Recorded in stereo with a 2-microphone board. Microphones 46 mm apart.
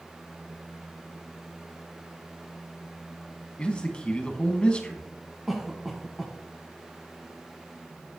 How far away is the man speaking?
About 1.3 m.